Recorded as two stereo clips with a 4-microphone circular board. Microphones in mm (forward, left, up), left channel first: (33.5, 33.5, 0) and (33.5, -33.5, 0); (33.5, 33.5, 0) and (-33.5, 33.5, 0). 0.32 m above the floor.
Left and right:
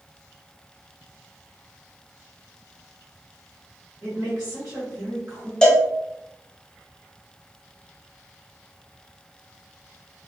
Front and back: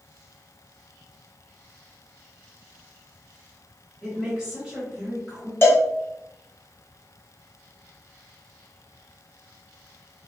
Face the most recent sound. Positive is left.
turn(degrees=20)